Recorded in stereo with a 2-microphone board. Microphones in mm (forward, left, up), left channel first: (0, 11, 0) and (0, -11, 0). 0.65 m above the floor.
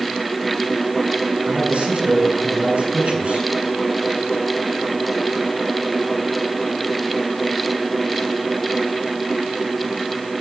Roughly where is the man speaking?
Right.